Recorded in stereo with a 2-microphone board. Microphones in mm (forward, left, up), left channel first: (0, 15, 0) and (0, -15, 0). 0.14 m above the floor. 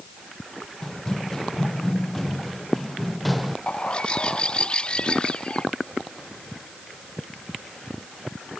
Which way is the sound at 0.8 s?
20° left (ahead or behind).